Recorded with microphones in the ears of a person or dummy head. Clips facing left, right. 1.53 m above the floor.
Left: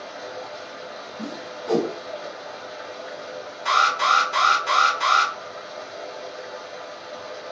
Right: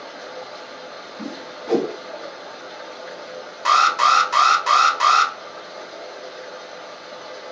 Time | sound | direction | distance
0.0 | running water | 45° right (ahead or behind) | 1.1 m
1.2 | a whoosh | centre (ahead or behind) | 1.0 m
3.6 | an alarm | 80° right | 1.1 m